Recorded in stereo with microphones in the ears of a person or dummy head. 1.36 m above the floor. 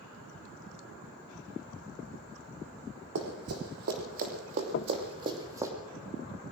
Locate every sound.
3.1 s running footsteps: 70° right (ahead or behind), 4 m; by 5.7 s 15° right (ahead or behind), 3 m
4.7 s knocking: 45° left (ahead or behind), 0.5 m